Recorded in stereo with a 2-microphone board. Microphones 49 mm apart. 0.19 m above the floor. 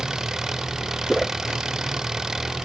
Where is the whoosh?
5° left (ahead or behind).